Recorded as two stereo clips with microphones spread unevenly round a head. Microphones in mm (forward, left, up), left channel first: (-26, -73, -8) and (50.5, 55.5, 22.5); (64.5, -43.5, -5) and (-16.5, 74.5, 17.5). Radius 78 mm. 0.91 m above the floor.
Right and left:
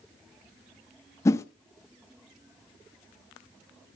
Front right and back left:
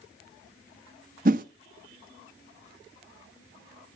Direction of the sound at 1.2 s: 165° left.